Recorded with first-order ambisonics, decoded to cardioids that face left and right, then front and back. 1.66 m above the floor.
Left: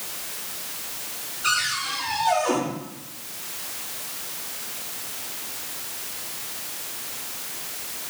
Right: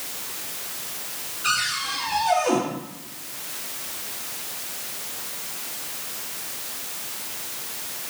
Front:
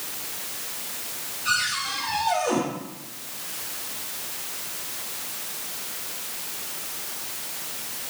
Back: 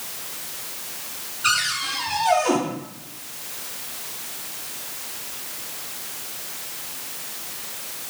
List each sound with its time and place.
1.4 s a cupboard door: 175° left, 3 m